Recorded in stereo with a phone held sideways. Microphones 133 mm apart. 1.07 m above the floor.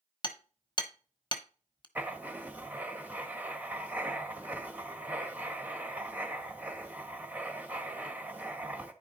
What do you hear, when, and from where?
0.2 s hammering: 35° left (ahead or behind), 1.1 m
1.9 s writing: 10° right (ahead or behind), 1.3 m